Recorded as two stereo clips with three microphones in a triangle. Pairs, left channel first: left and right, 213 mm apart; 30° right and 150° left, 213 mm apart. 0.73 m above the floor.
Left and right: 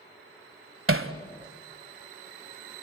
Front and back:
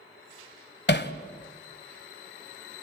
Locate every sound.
0.9 s hammering: 70° right, 1.5 m